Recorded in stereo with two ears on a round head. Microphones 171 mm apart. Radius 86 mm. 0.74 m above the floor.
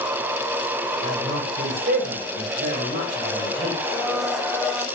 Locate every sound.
1.0 s a man speaking: 40° right (ahead or behind), 3.5 m
3.8 s a blender: centre (ahead or behind), 2 m